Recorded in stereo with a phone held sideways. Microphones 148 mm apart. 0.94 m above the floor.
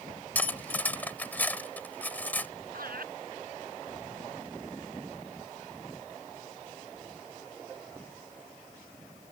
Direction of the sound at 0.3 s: 10° left (ahead or behind).